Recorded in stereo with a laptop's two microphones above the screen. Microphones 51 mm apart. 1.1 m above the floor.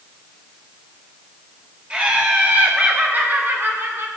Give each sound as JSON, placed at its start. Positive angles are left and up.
{"t": 1.9, "sound": "laughter", "side_deg": -25, "distance_m": 4.0}